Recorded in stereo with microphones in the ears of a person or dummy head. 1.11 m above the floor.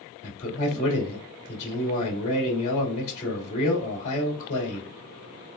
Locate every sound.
0.2 s a man speaking: 35° left (ahead or behind), 2 m